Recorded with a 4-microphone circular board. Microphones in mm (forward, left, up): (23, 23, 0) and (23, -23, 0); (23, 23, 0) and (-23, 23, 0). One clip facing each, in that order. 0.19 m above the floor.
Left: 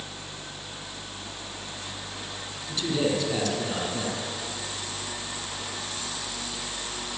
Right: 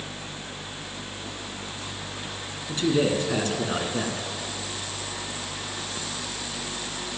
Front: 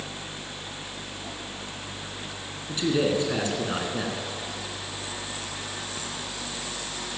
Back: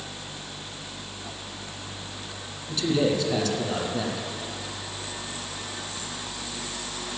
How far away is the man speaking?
About 2.5 m.